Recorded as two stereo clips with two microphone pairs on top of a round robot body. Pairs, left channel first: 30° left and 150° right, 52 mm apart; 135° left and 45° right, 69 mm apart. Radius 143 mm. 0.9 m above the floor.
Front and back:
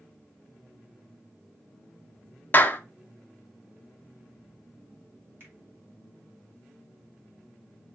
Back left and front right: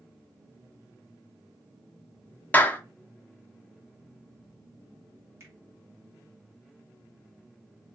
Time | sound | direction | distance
2.5 | a clap | 75° left | 0.6 m
5.4 | a finger snap | 100° right | 1.3 m